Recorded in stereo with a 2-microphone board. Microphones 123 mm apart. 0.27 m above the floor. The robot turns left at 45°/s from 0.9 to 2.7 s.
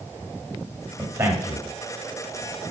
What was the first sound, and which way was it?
A man speaking, 20° right (ahead or behind).